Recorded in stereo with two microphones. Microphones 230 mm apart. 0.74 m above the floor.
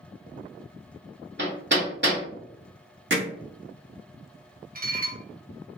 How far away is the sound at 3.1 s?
About 0.9 m.